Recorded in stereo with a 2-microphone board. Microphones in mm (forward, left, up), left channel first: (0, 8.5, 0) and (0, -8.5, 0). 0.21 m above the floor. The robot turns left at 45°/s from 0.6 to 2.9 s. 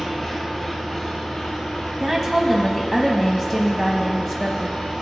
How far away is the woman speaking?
About 1.0 m.